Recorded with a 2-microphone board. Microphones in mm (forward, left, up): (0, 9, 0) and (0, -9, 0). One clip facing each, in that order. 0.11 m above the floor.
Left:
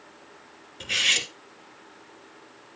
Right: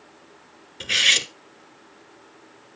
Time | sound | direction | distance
0.8 | cutlery clinking | 30° right (ahead or behind) | 0.7 m